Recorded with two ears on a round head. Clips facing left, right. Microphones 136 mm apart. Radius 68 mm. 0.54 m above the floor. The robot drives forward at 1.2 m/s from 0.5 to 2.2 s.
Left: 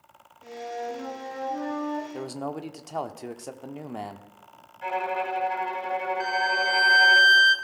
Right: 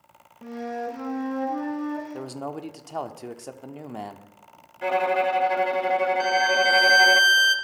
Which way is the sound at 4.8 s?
60° right (ahead or behind).